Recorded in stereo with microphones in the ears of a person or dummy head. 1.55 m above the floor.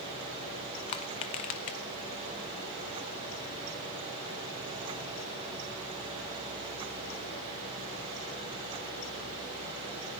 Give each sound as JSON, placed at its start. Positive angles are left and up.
{"t": 0.9, "sound": "crushing", "side_deg": 25, "distance_m": 0.5}